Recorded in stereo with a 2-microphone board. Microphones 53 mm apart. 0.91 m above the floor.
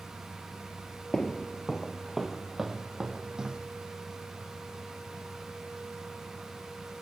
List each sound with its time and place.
1.1 s footsteps: 15° left (ahead or behind), 1.1 m; by 3.6 s 15° right (ahead or behind), 2 m